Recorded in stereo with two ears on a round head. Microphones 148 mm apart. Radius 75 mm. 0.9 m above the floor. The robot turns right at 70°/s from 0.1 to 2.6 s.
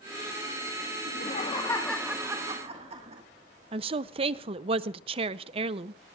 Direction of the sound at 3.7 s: 35° right (ahead or behind).